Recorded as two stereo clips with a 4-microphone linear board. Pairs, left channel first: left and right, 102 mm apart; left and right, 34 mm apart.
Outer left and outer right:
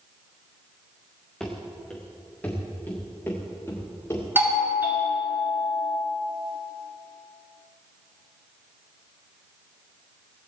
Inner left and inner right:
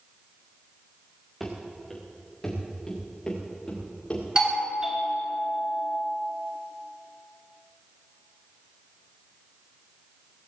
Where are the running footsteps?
5° left (ahead or behind), 3.5 m; by 4.2 s 30° left (ahead or behind), 6 m.